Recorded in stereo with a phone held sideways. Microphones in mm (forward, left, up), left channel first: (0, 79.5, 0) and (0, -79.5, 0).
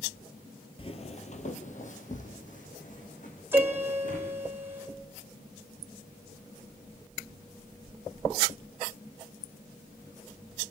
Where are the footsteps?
35° left (ahead or behind), 1.4 m; by 4.3 s 55° left (ahead or behind), 5.5 m.